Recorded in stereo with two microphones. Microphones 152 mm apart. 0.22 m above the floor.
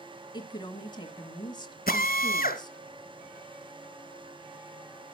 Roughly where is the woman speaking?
Left.